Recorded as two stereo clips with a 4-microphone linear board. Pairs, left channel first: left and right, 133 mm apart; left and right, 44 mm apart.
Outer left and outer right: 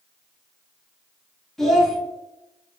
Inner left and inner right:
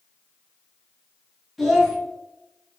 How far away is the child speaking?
About 1.1 m.